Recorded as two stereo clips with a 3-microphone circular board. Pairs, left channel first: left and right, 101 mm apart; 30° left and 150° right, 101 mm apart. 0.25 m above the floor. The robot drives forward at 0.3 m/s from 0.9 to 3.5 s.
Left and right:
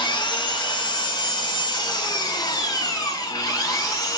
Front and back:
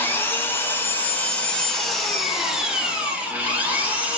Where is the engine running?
90° left, 0.9 m; by 4.2 s 140° left, 1.2 m.